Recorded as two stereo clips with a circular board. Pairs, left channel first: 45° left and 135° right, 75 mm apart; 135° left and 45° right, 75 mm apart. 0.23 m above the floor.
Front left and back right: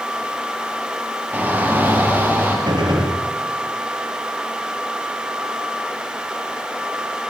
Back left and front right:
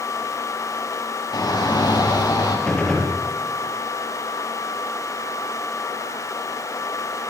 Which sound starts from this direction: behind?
A shout, at 1.3 s.